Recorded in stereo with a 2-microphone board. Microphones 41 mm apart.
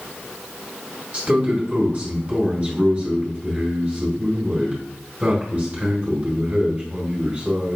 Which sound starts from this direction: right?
A man speaking, at 1.1 s.